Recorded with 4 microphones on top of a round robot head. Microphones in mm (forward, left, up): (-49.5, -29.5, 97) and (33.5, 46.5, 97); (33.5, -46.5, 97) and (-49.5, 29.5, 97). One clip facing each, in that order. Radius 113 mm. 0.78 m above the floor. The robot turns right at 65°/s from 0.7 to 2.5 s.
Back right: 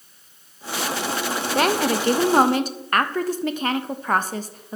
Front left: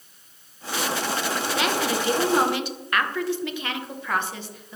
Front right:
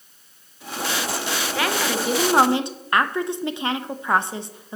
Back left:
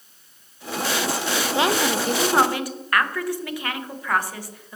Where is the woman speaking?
165° right, 0.6 m; by 4.8 s 105° right, 0.6 m.